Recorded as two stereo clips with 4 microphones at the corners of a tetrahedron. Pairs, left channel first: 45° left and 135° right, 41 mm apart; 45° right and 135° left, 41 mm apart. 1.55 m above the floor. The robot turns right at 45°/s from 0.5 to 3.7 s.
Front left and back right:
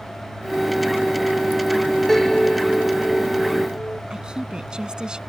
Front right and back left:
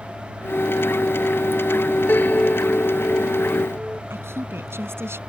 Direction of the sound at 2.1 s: 35° right.